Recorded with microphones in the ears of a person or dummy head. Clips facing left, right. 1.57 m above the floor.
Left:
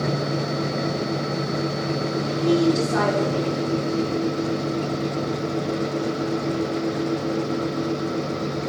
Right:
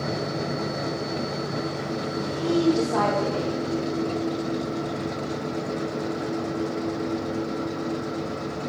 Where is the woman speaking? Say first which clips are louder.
Left 4 dB; 30° left (ahead or behind), 5.5 m.